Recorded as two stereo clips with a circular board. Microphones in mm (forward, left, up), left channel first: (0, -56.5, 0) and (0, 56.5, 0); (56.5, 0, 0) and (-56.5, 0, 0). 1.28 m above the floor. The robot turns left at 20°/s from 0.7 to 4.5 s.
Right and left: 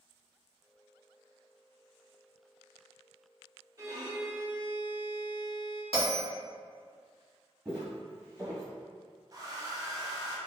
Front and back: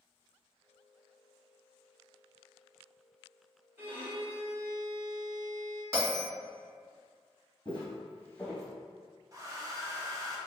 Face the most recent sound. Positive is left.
turn(degrees=135)